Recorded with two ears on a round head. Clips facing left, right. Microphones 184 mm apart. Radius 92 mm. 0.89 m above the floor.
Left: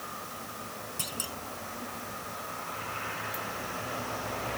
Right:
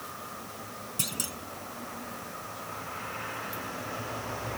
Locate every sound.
1.0 s a clunk: 25° right (ahead or behind)